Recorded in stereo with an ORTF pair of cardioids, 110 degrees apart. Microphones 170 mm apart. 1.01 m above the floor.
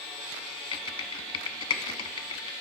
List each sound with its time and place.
0.7 s typing on a keyboard: 30° left, 0.8 m